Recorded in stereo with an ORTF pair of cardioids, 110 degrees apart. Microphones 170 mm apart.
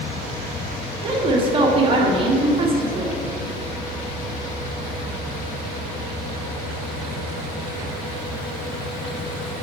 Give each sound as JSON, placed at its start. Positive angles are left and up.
{"t": 1.0, "sound": "a woman speaking", "azimuth_deg": -30, "distance_m": 1.4}